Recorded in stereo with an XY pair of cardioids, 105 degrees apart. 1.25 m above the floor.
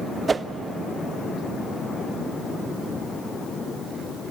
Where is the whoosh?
25° right, 0.5 m.